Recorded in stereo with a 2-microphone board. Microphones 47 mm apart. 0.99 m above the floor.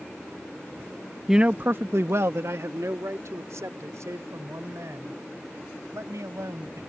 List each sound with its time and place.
1.3 s a man speaking: 10° right (ahead or behind); by 6.8 s 85° right